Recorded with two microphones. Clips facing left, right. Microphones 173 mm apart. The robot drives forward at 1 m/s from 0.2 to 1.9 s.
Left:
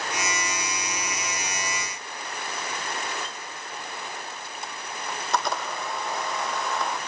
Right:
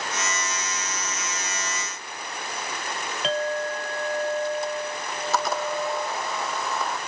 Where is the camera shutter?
Centre (ahead or behind).